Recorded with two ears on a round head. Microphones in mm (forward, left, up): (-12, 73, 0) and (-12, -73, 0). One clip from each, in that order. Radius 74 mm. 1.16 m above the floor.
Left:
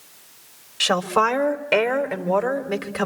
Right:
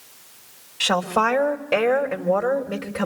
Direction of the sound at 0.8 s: 50° left (ahead or behind).